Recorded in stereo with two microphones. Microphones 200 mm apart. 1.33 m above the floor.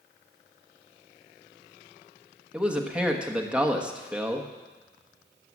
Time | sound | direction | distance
2.5 | a man speaking | 5° right (ahead or behind) | 1.4 m